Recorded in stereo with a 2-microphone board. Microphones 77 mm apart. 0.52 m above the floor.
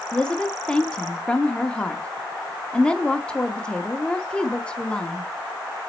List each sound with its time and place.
0.1 s a woman speaking: 15° left (ahead or behind), 0.7 m